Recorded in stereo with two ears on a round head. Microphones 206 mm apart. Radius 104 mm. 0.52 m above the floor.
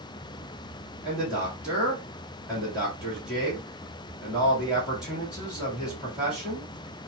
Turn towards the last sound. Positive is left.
turn(degrees=-5)  # may be behind; listen again after turning